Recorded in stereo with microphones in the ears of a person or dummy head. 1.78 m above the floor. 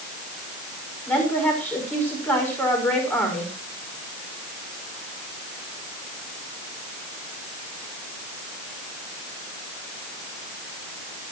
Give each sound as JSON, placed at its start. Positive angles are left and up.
{"t": 1.1, "sound": "a woman speaking", "side_deg": 15, "distance_m": 5.5}